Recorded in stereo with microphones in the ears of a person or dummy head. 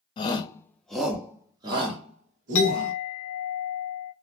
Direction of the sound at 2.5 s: 55° left (ahead or behind).